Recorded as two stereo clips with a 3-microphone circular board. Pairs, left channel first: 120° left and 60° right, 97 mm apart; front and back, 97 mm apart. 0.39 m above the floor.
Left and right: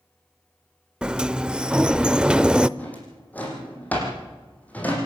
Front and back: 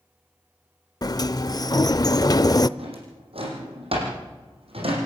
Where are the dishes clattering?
No dishes clattering in this recording.